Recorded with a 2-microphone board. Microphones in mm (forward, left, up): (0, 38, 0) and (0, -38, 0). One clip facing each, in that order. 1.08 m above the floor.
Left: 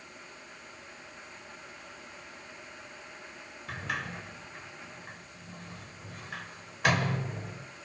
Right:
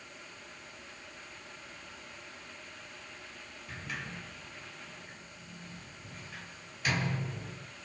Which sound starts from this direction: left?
A sliding door, at 3.7 s.